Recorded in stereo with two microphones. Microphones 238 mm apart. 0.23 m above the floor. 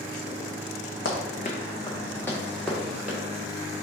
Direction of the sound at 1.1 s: 60° left (ahead or behind).